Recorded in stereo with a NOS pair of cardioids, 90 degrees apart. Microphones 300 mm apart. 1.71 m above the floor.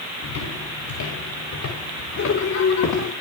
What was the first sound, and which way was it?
Footsteps, 60° left.